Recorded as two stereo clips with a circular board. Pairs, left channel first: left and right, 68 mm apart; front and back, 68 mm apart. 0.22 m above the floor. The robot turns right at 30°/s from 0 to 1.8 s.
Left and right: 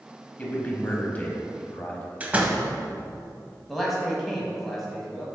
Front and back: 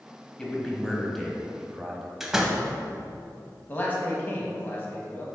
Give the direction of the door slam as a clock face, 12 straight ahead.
4 o'clock.